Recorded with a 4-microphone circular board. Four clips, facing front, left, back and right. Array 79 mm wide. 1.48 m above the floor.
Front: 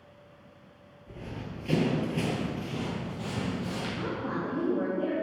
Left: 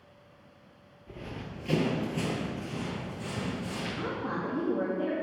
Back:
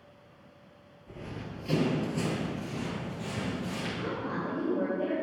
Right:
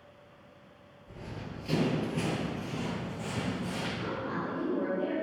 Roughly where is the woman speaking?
Ahead left.